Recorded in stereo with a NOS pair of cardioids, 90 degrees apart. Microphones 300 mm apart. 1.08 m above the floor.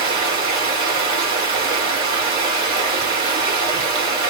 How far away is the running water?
About 2.5 m.